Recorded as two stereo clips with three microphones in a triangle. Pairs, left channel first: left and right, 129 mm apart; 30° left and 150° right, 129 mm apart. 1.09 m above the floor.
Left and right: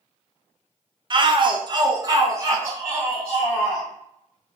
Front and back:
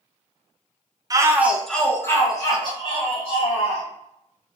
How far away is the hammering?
I don't hear hammering.